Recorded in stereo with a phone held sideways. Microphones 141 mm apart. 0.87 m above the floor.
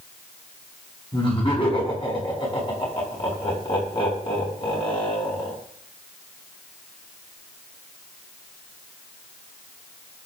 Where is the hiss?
I don't hear a hiss.